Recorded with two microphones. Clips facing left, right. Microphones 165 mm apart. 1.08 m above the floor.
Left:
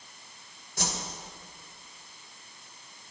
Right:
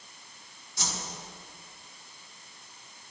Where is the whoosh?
55° left (ahead or behind), 2 m.